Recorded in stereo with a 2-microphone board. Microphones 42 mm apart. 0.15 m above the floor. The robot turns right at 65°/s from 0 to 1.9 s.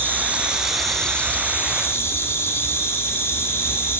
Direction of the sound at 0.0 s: 50° right.